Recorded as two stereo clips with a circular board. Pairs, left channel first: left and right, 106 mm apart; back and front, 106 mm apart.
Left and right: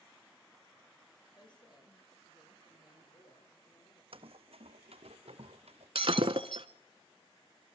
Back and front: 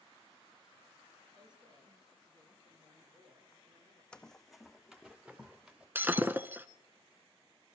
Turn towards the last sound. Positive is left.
turn(degrees=-70)